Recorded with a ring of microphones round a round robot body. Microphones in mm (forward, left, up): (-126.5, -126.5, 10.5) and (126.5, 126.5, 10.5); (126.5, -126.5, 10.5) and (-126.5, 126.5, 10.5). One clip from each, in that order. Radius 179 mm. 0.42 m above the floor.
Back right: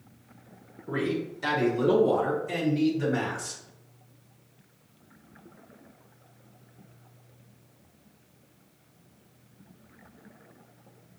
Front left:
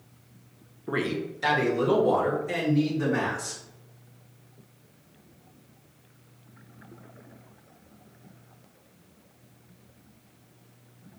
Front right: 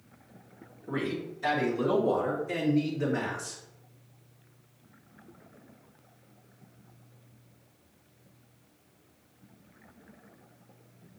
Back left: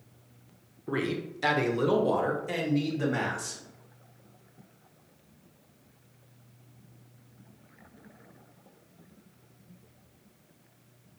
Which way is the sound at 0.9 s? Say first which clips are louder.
Front left 1 dB, back left 2 dB; 80° left.